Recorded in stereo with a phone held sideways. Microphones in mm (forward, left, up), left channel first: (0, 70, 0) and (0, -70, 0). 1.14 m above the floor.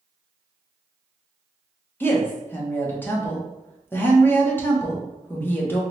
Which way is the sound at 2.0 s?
15° left (ahead or behind).